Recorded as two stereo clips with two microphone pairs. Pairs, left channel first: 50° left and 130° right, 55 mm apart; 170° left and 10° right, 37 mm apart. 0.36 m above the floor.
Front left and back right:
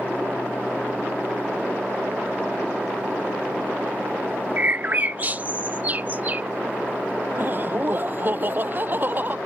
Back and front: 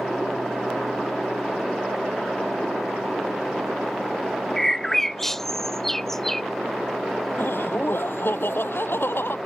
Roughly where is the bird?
Behind right.